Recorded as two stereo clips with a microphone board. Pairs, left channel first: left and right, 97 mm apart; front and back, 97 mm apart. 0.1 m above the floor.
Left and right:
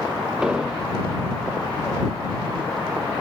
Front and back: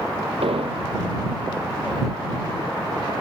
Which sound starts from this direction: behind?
An explosion, at 0.4 s.